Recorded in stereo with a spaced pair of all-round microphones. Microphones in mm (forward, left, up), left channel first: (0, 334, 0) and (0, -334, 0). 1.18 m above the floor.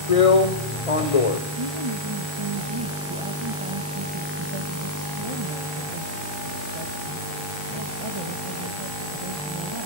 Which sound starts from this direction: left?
A drill, at 0.1 s.